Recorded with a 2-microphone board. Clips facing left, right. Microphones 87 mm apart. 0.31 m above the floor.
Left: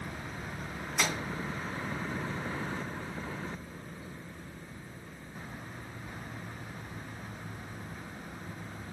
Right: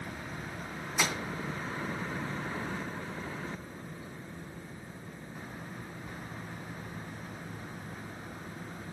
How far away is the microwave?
About 3 m.